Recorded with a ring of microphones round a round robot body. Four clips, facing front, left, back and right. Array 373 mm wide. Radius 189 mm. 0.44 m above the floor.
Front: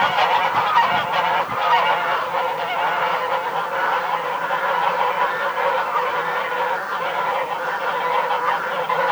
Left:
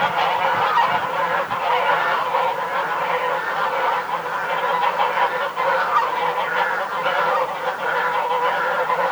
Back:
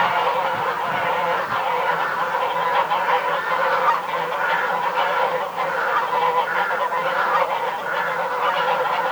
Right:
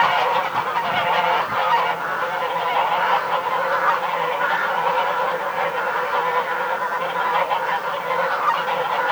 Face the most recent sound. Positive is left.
No sound to turn to.